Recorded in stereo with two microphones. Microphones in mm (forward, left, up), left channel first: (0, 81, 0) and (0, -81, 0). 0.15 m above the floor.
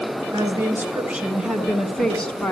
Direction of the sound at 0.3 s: 20° right (ahead or behind).